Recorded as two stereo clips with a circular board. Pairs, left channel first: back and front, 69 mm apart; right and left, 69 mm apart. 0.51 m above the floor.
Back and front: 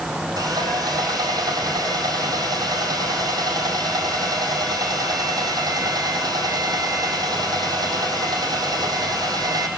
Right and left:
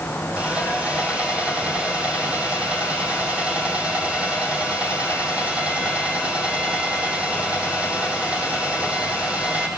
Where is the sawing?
15° left, 4 m.